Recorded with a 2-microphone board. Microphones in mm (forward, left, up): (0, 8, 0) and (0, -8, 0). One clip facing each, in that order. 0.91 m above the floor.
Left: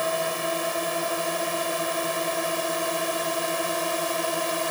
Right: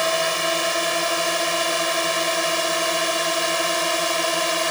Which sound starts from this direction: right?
A drone, at 0.0 s.